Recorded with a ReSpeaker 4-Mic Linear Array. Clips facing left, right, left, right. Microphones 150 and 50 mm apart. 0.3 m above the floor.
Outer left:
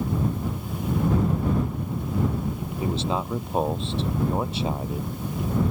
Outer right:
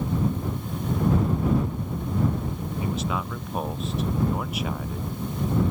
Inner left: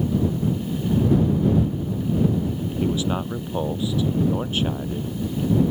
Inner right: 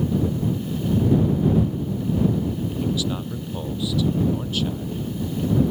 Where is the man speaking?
30° left (ahead or behind).